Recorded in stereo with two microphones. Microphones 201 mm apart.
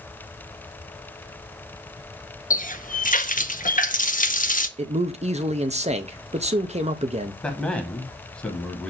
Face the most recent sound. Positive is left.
turn(degrees=5)  # may be behind; listen again after turning